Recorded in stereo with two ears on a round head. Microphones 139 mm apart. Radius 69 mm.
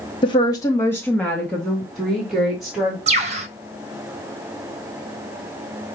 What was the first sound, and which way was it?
A woman speaking, 30° left (ahead or behind).